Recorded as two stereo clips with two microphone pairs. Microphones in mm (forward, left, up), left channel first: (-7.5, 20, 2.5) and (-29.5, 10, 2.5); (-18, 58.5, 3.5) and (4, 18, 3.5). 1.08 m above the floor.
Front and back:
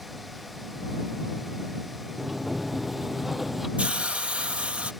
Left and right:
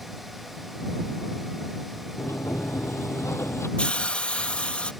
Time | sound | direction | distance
2.2 | a sliding door | 125° left | ?
3.8 | a hiss | straight behind | ?